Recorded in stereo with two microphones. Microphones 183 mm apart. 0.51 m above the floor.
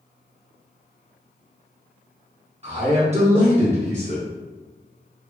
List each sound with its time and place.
2.6 s a man speaking: 35° right (ahead or behind), 0.8 m